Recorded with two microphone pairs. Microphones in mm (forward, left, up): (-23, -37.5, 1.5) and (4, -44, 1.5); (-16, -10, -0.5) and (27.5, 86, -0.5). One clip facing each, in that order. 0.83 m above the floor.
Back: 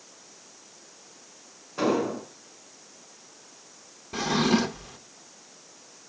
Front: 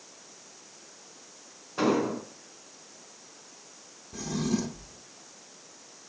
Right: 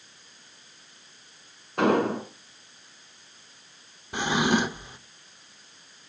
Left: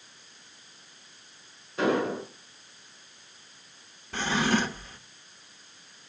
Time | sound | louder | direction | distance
1.8 | an explosion | back 1 dB, right 3 dB | 95° right | 5.5 m
4.1 | a drawer | back 7 dB, right 2 dB | 170° left | 0.8 m